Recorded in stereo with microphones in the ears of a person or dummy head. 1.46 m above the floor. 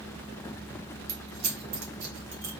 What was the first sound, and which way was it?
Keys jangling, 75° right (ahead or behind).